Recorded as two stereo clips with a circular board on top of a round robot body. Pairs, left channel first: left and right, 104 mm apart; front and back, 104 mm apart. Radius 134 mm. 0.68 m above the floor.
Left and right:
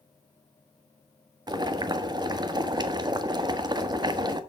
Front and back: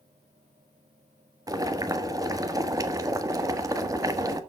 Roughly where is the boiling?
Behind right.